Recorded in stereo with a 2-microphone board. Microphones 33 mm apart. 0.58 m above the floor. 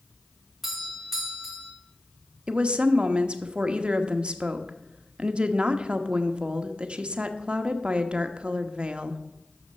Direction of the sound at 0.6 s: 5° right (ahead or behind).